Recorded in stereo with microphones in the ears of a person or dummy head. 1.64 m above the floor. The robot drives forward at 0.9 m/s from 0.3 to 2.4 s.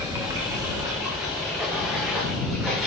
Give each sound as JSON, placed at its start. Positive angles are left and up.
{"t": 0.0, "sound": "running water", "side_deg": -5, "distance_m": 1.2}